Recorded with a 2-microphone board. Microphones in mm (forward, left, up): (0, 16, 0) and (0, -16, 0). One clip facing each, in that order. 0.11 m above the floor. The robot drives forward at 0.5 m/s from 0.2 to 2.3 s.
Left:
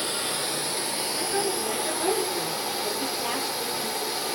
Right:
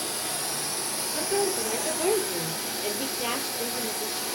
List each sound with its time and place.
0.0 s running water: 45° left (ahead or behind), 2.5 m; by 4.4 s 30° left (ahead or behind), 3 m
1.1 s a woman speaking: 60° right (ahead or behind), 3 m